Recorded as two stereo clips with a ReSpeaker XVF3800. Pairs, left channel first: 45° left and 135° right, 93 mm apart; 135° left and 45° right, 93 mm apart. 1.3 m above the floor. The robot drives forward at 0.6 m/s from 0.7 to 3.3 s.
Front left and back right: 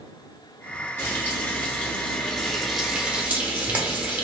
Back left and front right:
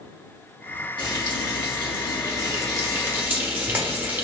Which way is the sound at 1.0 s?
20° right.